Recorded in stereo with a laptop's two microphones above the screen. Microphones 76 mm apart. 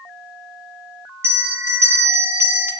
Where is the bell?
35° right (ahead or behind), 1.2 m.